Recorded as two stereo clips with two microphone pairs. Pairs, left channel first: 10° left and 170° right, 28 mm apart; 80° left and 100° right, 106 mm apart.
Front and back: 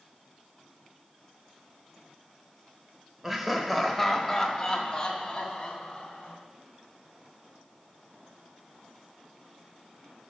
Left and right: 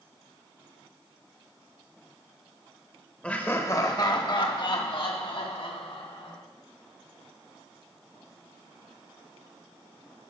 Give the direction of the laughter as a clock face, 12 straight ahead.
7 o'clock.